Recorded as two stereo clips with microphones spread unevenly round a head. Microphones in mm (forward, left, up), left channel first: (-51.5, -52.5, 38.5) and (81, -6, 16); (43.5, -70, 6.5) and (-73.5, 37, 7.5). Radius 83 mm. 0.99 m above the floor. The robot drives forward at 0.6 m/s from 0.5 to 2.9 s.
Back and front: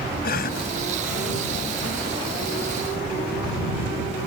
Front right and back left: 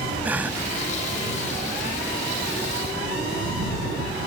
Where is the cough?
140° right; by 0.7 s 145° right.